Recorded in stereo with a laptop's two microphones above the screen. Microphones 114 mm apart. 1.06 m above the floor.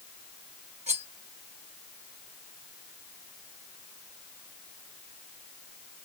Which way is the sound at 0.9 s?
75° right (ahead or behind).